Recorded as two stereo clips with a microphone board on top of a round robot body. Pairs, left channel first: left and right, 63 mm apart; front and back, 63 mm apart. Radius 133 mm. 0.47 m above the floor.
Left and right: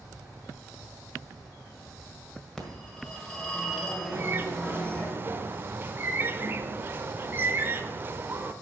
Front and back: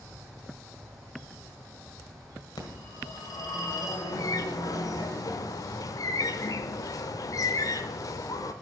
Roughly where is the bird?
Ahead right.